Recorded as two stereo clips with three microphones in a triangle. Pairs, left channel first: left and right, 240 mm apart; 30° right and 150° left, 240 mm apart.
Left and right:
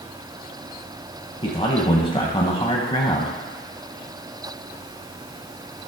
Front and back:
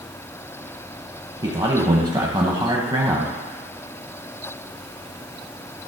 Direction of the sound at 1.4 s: 110° left.